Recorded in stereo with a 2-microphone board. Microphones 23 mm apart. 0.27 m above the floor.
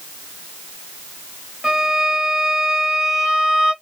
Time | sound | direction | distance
1.6 | a violin | 20° right (ahead or behind) | 1.5 m